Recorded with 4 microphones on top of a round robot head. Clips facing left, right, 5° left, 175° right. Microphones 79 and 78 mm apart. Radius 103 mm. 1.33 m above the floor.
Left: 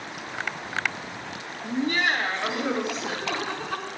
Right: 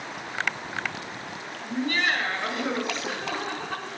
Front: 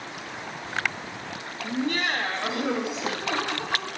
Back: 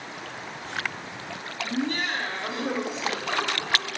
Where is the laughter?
25° left, 1.8 m; by 3.9 s 15° right, 2.5 m.